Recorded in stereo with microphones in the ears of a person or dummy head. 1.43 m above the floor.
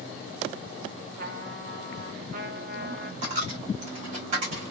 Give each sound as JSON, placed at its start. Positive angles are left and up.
{"t": 1.2, "sound": "a trumpet", "side_deg": -55, "distance_m": 1.4}
{"t": 3.2, "sound": "a dropped coin", "side_deg": -45, "distance_m": 1.9}